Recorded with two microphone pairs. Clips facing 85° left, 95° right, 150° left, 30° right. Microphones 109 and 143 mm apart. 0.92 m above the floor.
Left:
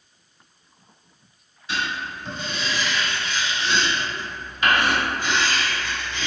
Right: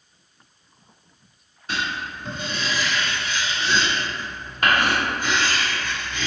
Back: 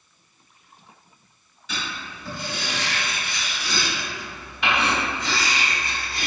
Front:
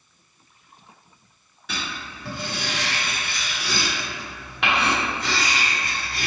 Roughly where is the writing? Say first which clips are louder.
Even, even; ahead right.